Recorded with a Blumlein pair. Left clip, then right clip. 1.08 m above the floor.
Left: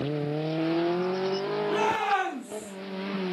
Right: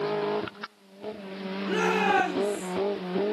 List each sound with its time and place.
1.7 s a shout: 60° right, 3 m